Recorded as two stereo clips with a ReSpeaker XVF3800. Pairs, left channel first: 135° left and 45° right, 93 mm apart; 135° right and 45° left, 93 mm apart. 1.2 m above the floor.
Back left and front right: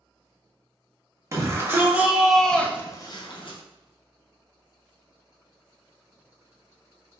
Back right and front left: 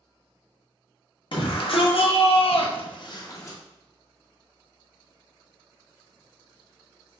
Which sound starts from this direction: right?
A shout, at 1.3 s.